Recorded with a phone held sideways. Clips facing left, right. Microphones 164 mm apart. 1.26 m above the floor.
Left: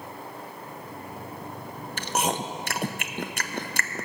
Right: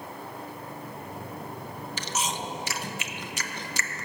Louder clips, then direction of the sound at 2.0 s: Left 6 dB; 50° left (ahead or behind).